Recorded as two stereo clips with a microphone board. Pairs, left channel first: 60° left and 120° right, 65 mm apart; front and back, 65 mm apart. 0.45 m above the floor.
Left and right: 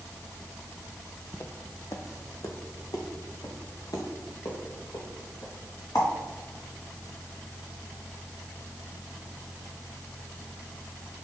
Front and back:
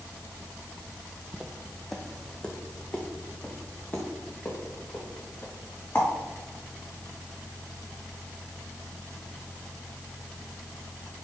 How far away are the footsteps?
About 0.9 m.